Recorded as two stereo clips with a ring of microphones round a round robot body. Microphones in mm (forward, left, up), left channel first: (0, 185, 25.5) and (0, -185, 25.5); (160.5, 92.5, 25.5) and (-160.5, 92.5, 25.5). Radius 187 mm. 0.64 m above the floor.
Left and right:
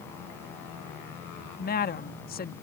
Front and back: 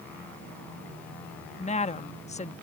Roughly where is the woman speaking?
Ahead left.